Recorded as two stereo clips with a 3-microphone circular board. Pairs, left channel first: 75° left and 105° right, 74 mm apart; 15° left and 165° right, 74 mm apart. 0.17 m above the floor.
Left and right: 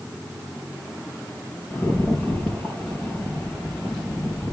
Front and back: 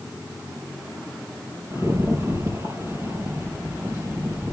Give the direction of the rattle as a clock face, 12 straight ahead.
7 o'clock.